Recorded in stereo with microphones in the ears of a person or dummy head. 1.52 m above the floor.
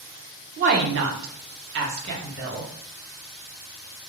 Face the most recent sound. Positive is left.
turn(degrees=-40)  # may be behind; listen again after turning